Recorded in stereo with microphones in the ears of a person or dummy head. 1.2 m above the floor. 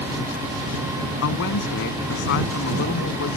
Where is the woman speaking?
70° left (ahead or behind); by 3.4 s 60° left (ahead or behind).